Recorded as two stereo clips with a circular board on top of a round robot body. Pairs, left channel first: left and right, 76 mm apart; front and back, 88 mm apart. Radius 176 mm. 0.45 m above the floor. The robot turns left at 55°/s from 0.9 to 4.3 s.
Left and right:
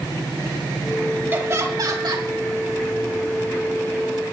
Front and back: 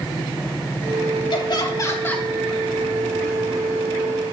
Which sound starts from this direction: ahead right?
Laughter, at 1.3 s.